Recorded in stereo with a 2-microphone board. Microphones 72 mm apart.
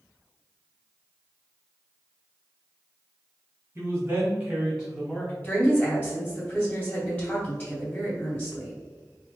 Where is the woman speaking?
30° left (ahead or behind), 1.8 m.